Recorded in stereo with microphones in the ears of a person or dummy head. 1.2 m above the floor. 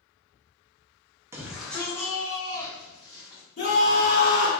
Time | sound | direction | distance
1.3 | a shout | 15° right (ahead or behind) | 0.5 m
3.6 | a scream | 40° left (ahead or behind) | 1.3 m